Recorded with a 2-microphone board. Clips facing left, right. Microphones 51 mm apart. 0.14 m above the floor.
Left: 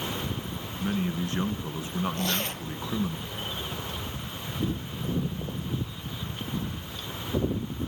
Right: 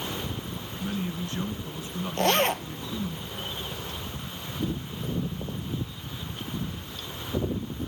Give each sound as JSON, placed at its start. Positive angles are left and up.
{"t": 0.8, "sound": "a man speaking", "side_deg": 35, "distance_m": 1.9}
{"t": 2.2, "sound": "a zipper", "side_deg": -55, "distance_m": 0.7}